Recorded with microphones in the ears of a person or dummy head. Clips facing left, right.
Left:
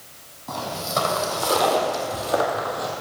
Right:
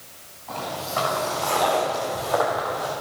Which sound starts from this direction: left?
Footsteps, at 0.5 s.